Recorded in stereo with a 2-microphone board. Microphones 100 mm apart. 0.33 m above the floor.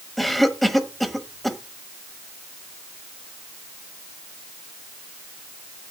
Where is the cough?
Centre (ahead or behind), 1.3 m.